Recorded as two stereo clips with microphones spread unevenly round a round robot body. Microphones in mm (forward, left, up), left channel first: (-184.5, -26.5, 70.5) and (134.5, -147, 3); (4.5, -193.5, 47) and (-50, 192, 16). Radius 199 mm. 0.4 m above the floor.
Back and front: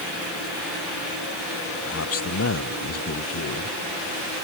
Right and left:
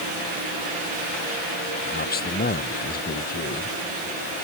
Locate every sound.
1.9 s a man speaking: 150° right